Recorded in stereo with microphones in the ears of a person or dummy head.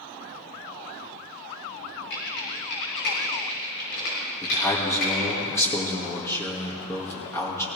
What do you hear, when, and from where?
2.1 s typing on a keyboard: 65° left (ahead or behind), 6 m
4.4 s a man speaking: 15° left (ahead or behind), 2 m